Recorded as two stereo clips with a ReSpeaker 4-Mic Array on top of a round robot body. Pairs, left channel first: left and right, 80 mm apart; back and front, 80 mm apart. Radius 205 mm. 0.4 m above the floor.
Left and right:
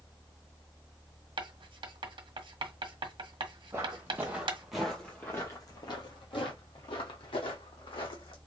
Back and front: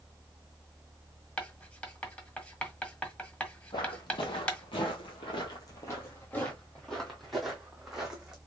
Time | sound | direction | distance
1.4 | writing | 105° right | 1.2 m
3.7 | footsteps | 150° right | 1.0 m